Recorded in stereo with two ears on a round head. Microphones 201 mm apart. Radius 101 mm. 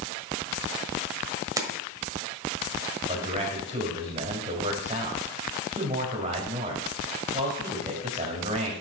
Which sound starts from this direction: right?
A man speaking, at 3.1 s.